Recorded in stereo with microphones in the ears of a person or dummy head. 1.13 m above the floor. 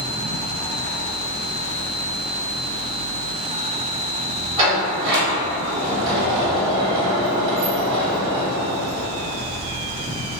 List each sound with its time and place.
4.6 s a sliding door: 35° right (ahead or behind), 1.0 m